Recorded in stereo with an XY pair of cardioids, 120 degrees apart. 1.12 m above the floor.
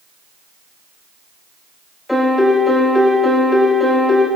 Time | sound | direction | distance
2.1 | a piano | 15° left | 2.5 m